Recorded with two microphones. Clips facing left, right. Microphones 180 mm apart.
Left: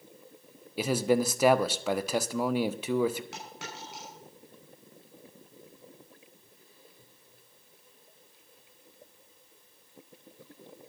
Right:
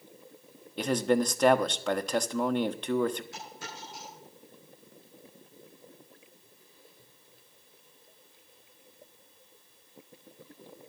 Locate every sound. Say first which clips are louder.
0.8 s a man speaking: even; 5° left (ahead or behind), 1.1 m
3.3 s a dropped coin: left 1 dB; 80° left, 6.5 m